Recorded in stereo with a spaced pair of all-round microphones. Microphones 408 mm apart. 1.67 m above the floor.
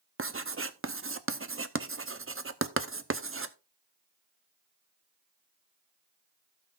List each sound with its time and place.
0.2 s writing: 30° right (ahead or behind), 0.6 m